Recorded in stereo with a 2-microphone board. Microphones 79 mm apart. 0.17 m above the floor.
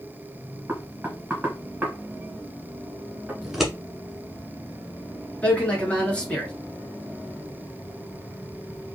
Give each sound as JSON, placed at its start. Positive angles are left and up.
{"t": 0.7, "sound": "knocking", "side_deg": -20, "distance_m": 1.5}
{"t": 3.4, "sound": "scissors", "side_deg": 0, "distance_m": 1.3}
{"t": 5.4, "sound": "a man speaking", "side_deg": 15, "distance_m": 1.8}